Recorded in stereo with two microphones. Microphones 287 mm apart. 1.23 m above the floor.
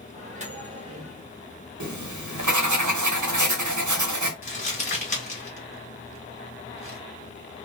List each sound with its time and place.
0.1 s a microwave: 25° right (ahead or behind), 1.1 m
1.8 s writing: 85° right, 0.7 m
4.4 s crumpling: 25° left (ahead or behind), 1.9 m